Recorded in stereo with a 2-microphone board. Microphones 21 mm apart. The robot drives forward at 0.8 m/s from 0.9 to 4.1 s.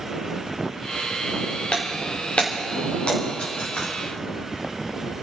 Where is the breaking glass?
75° left (ahead or behind), 3 m; by 3.9 s 50° left (ahead or behind), 4 m.